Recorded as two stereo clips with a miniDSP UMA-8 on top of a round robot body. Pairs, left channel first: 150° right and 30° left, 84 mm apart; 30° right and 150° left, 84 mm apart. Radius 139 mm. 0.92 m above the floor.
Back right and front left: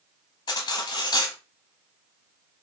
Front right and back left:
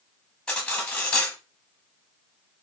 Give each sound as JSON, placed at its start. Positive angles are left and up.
{"t": 0.5, "sound": "cutlery clinking", "azimuth_deg": -110, "distance_m": 0.6}